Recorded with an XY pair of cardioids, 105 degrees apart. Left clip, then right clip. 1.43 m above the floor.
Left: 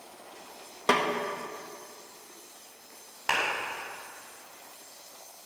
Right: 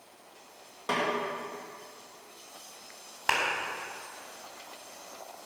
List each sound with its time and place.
0.9 s a snare drum: 65° left, 1.7 m
3.3 s a clap: 25° right, 4.5 m